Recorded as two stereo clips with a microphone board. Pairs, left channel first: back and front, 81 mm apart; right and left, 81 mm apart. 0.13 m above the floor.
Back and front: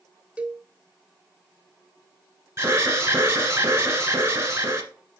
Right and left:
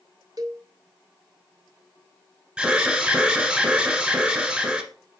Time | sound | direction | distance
0.4 | a cowbell | 75° left | 0.6 m
2.6 | an alarm | 25° left | 1.3 m